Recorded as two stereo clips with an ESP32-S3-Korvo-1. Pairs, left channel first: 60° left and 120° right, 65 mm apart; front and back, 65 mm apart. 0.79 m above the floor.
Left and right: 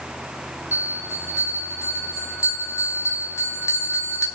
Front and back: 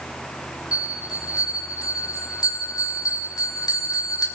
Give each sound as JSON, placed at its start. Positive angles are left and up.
{"t": 0.7, "sound": "a bell", "azimuth_deg": 20, "distance_m": 2.5}